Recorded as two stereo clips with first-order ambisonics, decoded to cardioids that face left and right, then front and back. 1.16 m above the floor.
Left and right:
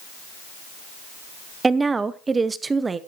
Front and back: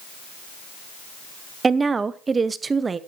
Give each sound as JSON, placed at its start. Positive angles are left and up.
{"t": 1.6, "sound": "a woman speaking", "azimuth_deg": -140, "distance_m": 0.6}